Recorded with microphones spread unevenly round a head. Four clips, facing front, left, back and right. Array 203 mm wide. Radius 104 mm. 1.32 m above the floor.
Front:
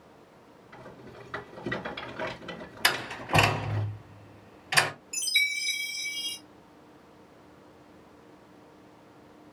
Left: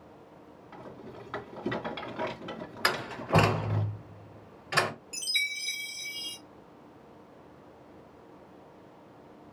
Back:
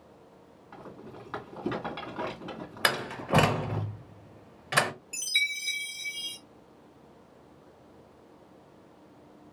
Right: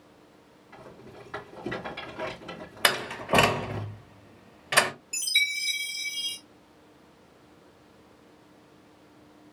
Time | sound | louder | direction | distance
0.7 | a rattle | left 1 dB, back 2 dB | 175° left | 2.5 m
2.8 | a door slam | right 3 dB, back 1 dB | 130° right | 1.3 m
5.1 | a chime | right 5 dB, front 2 dB | 170° right | 1.4 m